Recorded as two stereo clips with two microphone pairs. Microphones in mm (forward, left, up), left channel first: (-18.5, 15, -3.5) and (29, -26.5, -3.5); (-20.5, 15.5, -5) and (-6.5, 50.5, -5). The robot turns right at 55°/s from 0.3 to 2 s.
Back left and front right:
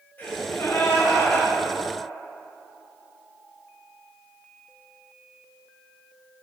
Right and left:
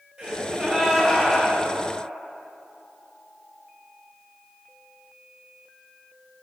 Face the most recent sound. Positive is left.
turn(degrees=-155)